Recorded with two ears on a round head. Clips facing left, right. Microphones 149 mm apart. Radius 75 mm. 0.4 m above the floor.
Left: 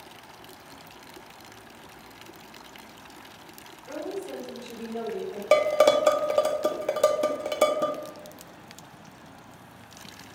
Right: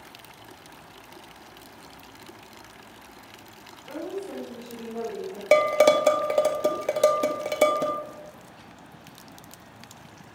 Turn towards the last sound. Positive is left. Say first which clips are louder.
# right 1 dB
turn(degrees=-10)  # may be behind; listen again after turning